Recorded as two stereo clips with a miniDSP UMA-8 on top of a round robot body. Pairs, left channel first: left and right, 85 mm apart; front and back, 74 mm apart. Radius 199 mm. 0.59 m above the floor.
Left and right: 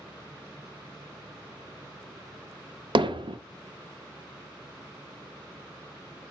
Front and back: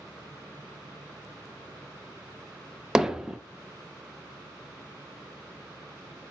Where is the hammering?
100° right, 0.6 m.